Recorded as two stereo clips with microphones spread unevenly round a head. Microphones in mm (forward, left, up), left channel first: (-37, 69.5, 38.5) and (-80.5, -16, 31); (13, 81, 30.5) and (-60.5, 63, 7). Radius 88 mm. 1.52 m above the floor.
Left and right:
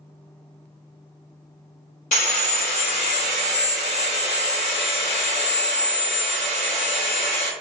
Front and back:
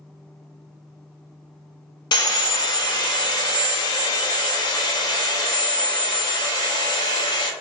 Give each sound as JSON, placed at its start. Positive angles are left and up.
{"t": 2.1, "sound": "sawing", "azimuth_deg": 35, "distance_m": 0.6}